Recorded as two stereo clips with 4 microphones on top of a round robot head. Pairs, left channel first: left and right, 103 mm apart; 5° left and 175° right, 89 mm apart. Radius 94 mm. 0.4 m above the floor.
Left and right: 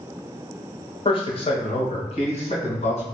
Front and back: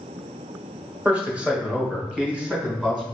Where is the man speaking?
110° left, 1.5 m; by 3.0 s 100° left, 3 m.